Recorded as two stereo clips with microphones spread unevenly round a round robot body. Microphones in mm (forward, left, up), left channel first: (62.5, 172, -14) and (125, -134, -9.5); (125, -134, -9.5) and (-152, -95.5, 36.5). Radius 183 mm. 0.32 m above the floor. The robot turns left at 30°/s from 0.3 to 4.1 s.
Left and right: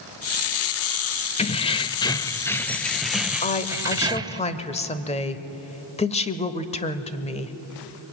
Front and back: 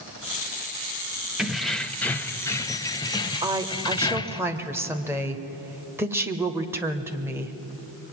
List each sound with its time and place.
1.4 s keys jangling: 65° left, 0.6 m; by 4.4 s 15° right, 0.6 m
3.4 s a woman speaking: 100° left, 1.2 m; by 7.5 s 80° left, 1.2 m